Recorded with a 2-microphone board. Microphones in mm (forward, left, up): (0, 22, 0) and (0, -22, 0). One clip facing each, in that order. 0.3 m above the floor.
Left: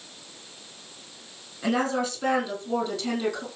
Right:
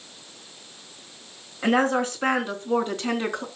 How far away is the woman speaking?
About 4 m.